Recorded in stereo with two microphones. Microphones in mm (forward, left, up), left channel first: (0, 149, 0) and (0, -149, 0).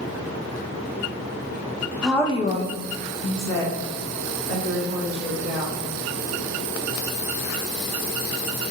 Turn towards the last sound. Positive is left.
turn(degrees=60)  # may be behind; listen again after turning